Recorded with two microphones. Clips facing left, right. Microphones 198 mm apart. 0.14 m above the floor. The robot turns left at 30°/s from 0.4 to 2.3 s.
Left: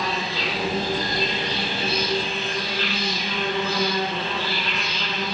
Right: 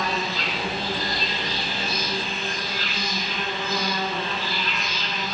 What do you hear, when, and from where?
0.0 s an insect: 145° left, 2.5 m; by 5.3 s 90° left, 2.5 m